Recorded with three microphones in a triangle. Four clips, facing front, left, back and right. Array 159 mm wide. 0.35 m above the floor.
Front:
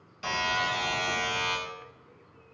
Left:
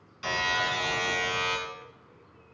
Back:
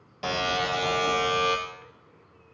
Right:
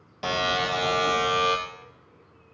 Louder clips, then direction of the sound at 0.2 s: Right 4 dB, back 2 dB; 120° right.